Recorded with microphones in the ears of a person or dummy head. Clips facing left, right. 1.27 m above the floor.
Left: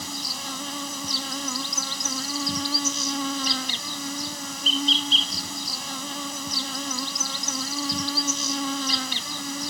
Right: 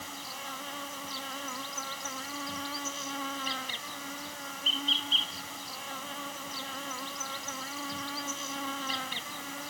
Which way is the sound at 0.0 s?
65° left (ahead or behind).